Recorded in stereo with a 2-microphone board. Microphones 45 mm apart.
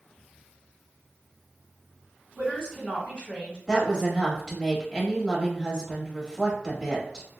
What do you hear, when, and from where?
2.4 s a woman speaking: 25° left (ahead or behind), 2.0 m
3.7 s a woman speaking: 15° left (ahead or behind), 1.0 m